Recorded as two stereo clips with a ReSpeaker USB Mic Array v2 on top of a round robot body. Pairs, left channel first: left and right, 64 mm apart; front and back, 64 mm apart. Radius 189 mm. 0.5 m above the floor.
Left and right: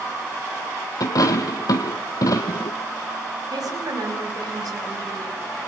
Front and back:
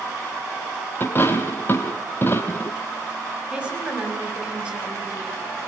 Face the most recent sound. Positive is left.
turn(degrees=-105)